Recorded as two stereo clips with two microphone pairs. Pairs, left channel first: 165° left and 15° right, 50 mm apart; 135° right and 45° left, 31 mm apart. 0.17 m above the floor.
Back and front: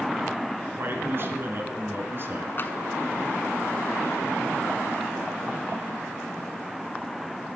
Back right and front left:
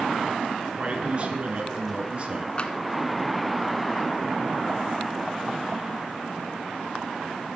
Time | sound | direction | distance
0.7 | a man speaking | 10° left | 3 m
2.6 | tapping | 175° right | 1.2 m